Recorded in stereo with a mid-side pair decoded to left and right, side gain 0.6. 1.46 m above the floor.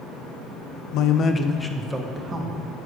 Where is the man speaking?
65° left, 0.9 m; by 2.6 s 20° right, 2.0 m.